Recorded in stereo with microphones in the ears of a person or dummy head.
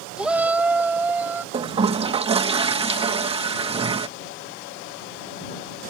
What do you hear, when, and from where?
0.2 s a shout: 5° right (ahead or behind); by 1.4 s 10° right (ahead or behind)
1.5 s a toilet flushing: 35° right (ahead or behind)